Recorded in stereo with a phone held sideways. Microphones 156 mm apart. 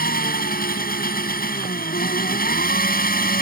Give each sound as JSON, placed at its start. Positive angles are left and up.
{"t": 0.0, "sound": "an engine running", "side_deg": 75}